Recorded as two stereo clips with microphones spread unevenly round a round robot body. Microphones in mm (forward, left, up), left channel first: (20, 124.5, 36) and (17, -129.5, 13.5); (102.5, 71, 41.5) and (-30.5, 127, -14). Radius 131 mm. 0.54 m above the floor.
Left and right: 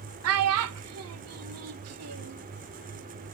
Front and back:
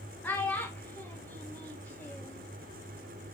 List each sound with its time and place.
0.2 s a child speaking: 110° right, 0.9 m